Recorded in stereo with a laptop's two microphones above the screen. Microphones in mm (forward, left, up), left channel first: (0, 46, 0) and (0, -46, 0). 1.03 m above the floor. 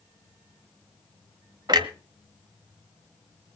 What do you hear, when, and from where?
1.7 s a clunk: 50° right (ahead or behind), 1.1 m